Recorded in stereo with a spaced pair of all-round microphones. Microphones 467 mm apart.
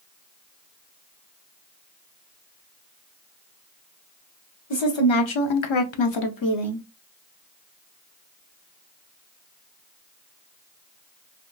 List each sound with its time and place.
4.7 s a woman speaking: 65° left (ahead or behind), 0.9 m; by 6.8 s 25° left (ahead or behind), 0.6 m